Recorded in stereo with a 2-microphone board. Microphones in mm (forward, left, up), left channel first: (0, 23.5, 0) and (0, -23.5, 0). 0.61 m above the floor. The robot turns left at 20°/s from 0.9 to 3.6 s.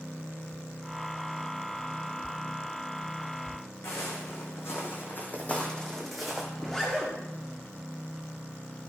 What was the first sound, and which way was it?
Footsteps, 70° left (ahead or behind).